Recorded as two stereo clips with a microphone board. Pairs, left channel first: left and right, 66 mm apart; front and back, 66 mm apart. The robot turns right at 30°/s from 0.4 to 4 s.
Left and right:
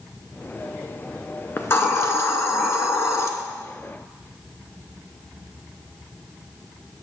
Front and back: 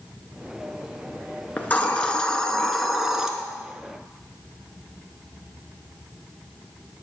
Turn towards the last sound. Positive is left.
turn(degrees=125)